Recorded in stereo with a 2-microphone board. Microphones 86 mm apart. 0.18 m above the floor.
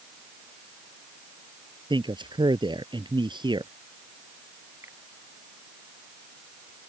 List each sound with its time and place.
1.9 s a man speaking: 65° right (ahead or behind)
4.8 s a finger snap: 30° right (ahead or behind)